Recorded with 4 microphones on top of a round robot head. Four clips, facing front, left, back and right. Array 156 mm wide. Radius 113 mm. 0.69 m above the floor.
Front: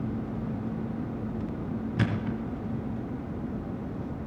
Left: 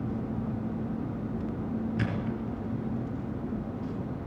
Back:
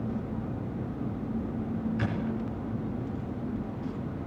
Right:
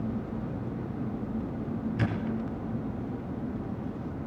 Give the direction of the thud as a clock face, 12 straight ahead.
12 o'clock.